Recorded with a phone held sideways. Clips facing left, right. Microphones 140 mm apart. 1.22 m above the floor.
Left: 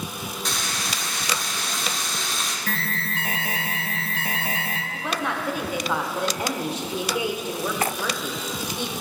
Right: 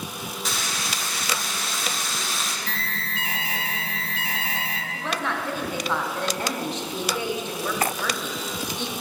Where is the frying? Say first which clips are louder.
Even; centre (ahead or behind), 0.6 m.